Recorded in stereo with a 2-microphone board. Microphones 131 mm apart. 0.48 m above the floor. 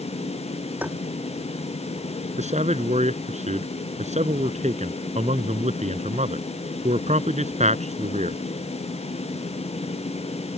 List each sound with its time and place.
0.8 s tapping: 15° right (ahead or behind)
2.4 s a man speaking: 60° right (ahead or behind)